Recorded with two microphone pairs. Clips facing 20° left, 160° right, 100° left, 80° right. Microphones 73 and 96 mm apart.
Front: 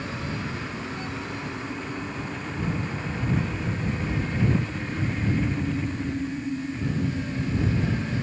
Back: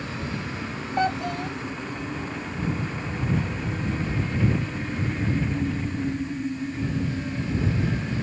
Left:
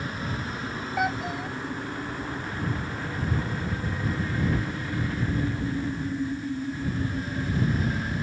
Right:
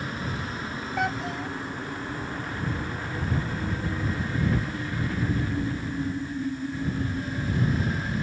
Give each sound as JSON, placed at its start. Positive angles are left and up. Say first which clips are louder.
{"t": 1.0, "sound": "a child speaking", "louder": "back 8 dB, left 1 dB", "azimuth_deg": -175}